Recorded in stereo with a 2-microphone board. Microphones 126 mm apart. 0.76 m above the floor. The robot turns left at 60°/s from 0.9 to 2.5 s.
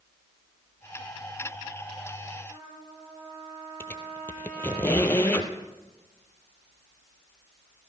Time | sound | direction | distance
2.5 | a trumpet | 45° right (ahead or behind) | 10 m
3.8 | a squeak | 15° left (ahead or behind) | 1.4 m